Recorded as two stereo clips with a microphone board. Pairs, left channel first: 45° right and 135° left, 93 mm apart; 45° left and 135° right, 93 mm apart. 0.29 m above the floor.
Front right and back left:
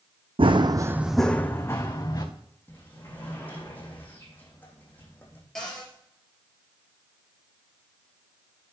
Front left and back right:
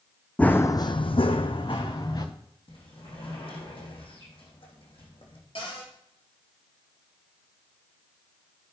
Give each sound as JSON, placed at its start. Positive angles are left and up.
{"t": 0.4, "sound": "running footsteps", "azimuth_deg": 120, "distance_m": 0.9}
{"t": 2.7, "sound": "a sliding door", "azimuth_deg": 25, "distance_m": 3.0}
{"t": 5.5, "sound": "a cupboard door", "azimuth_deg": 40, "distance_m": 3.0}